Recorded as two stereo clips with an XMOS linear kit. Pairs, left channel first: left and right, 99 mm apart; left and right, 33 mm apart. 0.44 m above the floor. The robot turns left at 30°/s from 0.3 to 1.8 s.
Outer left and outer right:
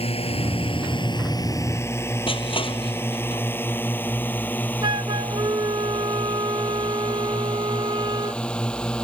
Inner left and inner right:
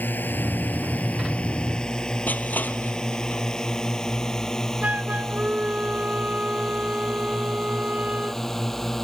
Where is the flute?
50° right (ahead or behind).